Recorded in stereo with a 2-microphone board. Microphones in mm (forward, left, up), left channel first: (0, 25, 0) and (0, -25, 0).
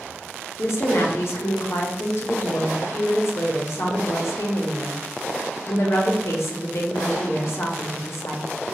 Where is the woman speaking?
60° left (ahead or behind), 0.6 m.